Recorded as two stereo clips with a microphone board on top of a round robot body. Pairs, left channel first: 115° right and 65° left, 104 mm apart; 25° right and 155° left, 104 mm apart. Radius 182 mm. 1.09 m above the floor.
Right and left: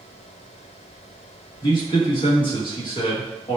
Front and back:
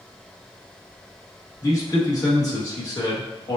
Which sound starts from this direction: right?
A man speaking, at 1.6 s.